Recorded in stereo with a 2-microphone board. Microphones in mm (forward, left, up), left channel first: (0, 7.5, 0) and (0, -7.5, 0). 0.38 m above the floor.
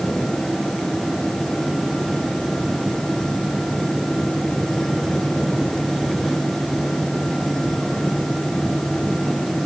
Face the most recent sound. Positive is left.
No sound to turn to.